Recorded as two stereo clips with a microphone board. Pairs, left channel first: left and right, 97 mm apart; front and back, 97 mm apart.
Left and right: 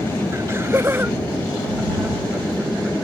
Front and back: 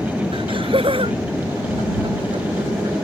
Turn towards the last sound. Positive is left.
turn(degrees=-165)